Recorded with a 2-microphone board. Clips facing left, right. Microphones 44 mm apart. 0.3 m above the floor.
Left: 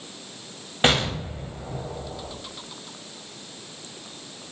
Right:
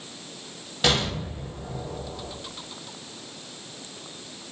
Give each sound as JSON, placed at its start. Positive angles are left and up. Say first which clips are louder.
{"t": 0.8, "sound": "an explosion", "louder": "left 3 dB", "side_deg": 35, "distance_m": 1.1}